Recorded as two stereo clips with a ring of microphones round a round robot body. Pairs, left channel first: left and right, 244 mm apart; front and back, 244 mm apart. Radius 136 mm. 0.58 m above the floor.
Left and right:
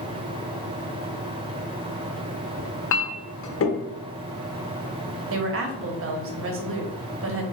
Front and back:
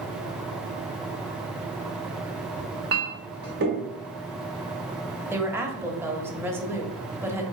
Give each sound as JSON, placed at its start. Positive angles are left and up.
{"t": 2.6, "sound": "a clink", "azimuth_deg": 125, "distance_m": 0.8}
{"t": 5.3, "sound": "a woman speaking", "azimuth_deg": -100, "distance_m": 1.0}